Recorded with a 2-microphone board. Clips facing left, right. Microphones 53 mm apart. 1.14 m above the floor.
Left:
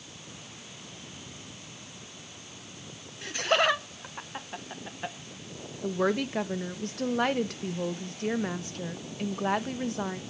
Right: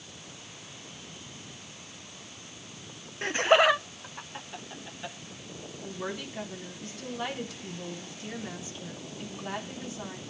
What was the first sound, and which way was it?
Laughter, 40° right (ahead or behind).